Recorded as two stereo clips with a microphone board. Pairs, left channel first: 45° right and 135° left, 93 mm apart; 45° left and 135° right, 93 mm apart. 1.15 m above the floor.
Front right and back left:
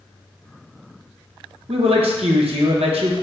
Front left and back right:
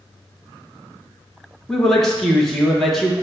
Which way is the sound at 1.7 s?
130° left.